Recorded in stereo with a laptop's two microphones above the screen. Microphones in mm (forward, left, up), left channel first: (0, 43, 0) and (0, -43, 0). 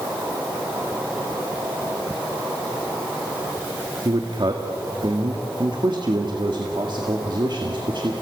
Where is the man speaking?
55° right (ahead or behind), 2.0 m.